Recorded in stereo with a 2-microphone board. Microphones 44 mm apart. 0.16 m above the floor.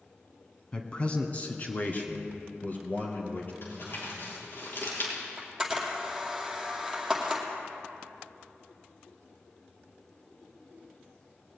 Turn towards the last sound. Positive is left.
turn(degrees=-5)  # may be behind; listen again after turning